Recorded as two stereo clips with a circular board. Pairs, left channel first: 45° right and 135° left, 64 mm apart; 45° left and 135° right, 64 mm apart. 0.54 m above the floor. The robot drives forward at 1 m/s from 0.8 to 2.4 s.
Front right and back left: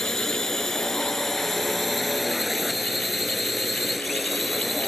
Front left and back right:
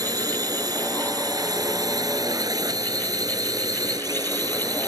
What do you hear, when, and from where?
0.0 s a drone: 130° right; by 4.9 s 135° right